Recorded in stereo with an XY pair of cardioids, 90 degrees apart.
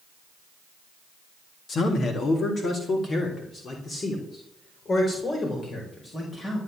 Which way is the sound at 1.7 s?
60° left.